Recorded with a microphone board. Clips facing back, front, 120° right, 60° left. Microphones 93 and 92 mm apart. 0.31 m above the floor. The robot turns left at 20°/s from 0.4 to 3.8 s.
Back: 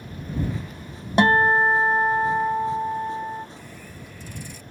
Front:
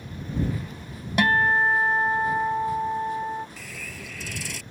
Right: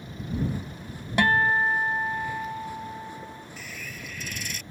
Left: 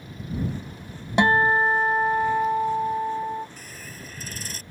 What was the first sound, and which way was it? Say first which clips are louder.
A guitar: back 4 dB, left 3 dB; 125° left.